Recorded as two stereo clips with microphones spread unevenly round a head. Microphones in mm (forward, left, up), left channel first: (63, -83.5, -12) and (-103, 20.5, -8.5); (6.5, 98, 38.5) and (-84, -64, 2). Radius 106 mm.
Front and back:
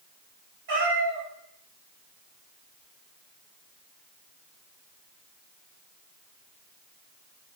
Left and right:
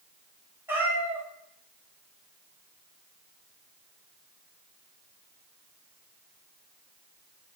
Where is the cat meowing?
160° left, 1.5 m.